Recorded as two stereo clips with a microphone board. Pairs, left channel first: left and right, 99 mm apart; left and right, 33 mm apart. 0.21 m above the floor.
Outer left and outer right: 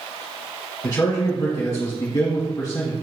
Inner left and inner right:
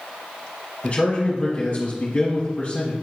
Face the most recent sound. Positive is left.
turn(degrees=40)  # may be behind; listen again after turning